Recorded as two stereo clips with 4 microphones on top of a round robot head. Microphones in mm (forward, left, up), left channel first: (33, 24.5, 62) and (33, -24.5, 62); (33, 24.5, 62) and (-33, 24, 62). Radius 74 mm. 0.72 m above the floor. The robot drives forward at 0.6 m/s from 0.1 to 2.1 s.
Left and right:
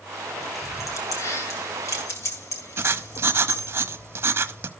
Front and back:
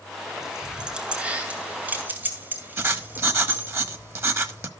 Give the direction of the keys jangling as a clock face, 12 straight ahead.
9 o'clock.